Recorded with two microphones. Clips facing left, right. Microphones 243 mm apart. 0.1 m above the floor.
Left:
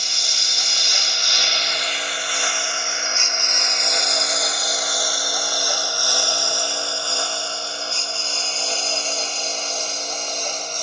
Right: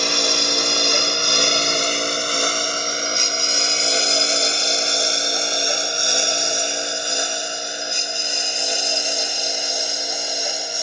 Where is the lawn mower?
70° right (ahead or behind); by 10.8 s 10° right (ahead or behind).